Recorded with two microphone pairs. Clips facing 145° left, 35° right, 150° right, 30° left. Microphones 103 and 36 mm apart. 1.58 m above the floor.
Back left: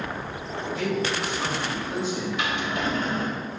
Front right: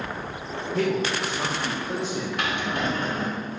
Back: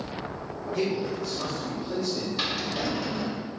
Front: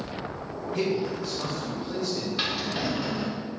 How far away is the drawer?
About 1.8 m.